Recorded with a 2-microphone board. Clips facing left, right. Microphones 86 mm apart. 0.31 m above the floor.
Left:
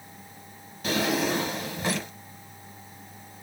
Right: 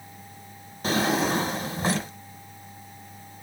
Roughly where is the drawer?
Right.